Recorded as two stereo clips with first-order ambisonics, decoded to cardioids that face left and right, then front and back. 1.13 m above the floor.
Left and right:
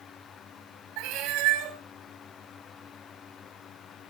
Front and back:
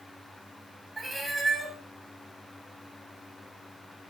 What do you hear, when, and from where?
1.0 s a cat meowing: 100° right, 2.5 m